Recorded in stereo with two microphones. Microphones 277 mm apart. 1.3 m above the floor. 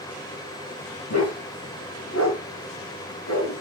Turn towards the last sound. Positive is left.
turn(degrees=75)  # may be behind; listen again after turning